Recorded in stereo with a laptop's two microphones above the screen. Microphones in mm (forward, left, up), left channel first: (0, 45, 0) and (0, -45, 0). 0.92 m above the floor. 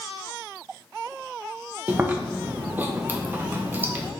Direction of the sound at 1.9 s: 20° right (ahead or behind).